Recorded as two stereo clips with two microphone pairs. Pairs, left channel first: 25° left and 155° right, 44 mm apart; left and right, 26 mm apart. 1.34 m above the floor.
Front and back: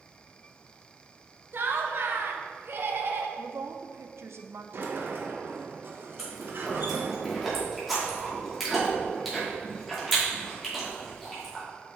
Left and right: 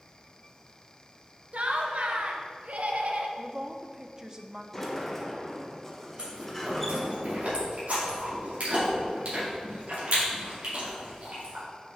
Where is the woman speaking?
155° right, 0.6 m.